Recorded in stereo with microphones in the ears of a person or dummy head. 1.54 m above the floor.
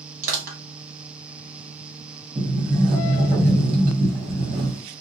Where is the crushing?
50° right (ahead or behind), 1.4 m.